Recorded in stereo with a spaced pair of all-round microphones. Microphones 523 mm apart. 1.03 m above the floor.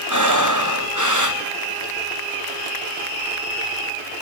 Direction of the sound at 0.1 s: 35° right (ahead or behind).